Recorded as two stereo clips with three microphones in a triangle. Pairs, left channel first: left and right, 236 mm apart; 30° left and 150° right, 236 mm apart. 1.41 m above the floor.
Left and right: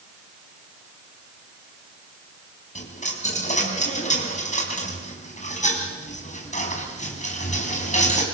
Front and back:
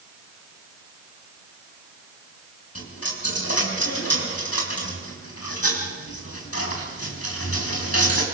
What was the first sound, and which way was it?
A dropped coin, 30° left.